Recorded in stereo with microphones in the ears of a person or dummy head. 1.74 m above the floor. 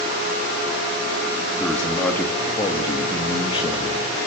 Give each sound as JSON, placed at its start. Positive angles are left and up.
{"t": 1.6, "sound": "a man speaking", "side_deg": 5, "distance_m": 3.0}